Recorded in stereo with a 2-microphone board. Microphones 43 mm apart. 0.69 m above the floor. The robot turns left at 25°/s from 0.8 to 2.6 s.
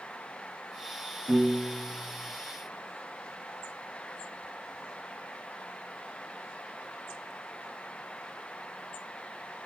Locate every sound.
1.3 s a piano: 50° right (ahead or behind), 7 m; by 2.3 s 20° right (ahead or behind), 7 m